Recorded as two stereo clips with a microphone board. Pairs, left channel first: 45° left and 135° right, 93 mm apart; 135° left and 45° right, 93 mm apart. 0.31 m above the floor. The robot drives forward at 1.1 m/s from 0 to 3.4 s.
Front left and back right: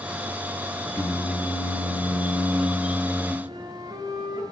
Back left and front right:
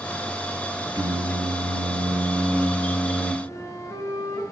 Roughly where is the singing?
Ahead.